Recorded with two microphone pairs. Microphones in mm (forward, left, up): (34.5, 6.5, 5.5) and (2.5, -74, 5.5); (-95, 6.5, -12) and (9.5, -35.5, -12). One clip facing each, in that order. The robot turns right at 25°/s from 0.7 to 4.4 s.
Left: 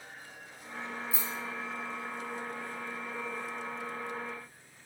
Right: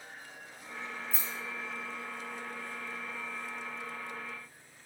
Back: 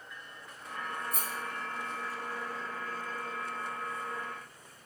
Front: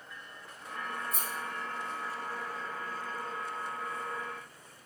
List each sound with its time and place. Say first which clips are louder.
1.1 s a rattle: left 2 dB, even; 150° left, 1.3 m; by 1.3 s 155° left, 1.3 m